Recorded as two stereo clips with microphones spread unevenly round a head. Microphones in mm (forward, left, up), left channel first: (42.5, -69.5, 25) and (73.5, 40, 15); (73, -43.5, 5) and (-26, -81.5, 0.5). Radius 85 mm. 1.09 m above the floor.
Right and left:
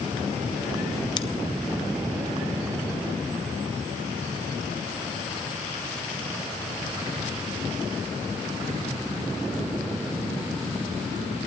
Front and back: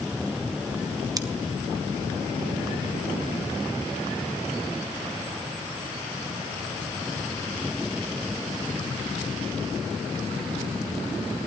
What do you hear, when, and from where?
1.2 s scissors: 135° right, 0.8 m